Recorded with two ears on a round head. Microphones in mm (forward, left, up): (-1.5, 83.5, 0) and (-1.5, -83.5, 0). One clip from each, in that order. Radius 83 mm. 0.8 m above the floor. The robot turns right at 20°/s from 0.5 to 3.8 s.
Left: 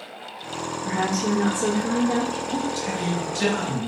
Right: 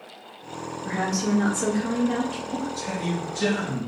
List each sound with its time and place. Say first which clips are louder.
0.8 s a woman speaking: left 2 dB; 175° right, 1.0 m; by 2.4 s 145° right, 1.0 m
2.5 s a man speaking: left 4 dB; 50° left (ahead or behind), 1.1 m; by 3.9 s 40° left (ahead or behind), 1.1 m